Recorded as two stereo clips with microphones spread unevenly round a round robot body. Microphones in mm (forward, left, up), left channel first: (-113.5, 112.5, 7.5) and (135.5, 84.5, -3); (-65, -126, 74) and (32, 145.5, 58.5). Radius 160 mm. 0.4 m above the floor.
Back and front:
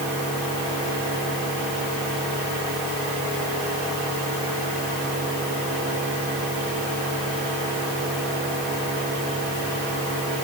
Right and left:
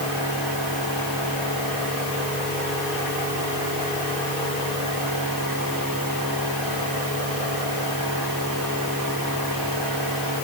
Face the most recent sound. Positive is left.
No sound to turn to.